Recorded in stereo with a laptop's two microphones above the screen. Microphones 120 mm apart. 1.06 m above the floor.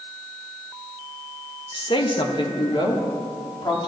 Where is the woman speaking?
45° left (ahead or behind), 0.9 m.